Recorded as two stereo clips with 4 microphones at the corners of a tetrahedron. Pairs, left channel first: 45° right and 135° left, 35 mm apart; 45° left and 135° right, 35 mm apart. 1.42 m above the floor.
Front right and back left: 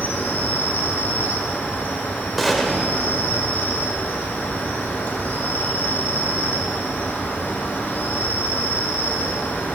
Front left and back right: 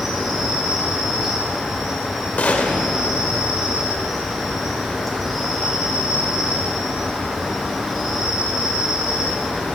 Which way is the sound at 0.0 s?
55° right.